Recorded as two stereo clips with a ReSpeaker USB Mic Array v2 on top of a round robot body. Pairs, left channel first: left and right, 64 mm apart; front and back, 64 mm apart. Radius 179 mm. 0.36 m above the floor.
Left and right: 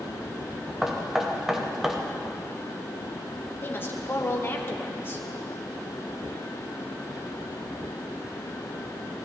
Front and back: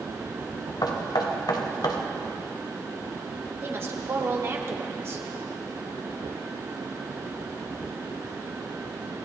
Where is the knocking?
10° right, 1.7 m.